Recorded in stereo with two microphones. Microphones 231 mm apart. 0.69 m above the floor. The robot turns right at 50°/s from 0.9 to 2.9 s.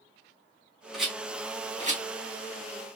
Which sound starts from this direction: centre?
A rattle, at 0.9 s.